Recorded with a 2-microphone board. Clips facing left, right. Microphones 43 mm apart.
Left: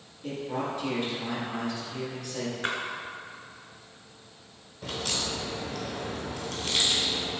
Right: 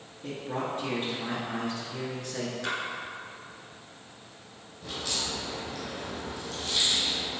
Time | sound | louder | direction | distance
0.2 | a man speaking | left 1 dB | 40° right (ahead or behind) | 1.7 m
2.6 | a splash | left 2 dB | 35° left (ahead or behind) | 0.9 m
4.8 | a crack | left 2 dB | 55° left (ahead or behind) | 0.9 m